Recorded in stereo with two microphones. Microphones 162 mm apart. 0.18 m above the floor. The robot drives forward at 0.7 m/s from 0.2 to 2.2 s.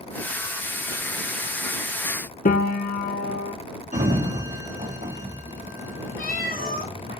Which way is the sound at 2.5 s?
65° left (ahead or behind).